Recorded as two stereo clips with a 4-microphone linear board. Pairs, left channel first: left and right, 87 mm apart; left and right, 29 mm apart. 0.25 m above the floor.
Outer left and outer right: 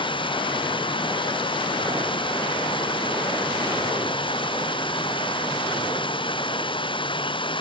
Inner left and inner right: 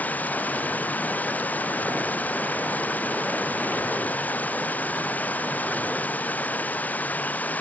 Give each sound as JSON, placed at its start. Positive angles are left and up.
{"t": 0.0, "sound": "running water", "side_deg": 75}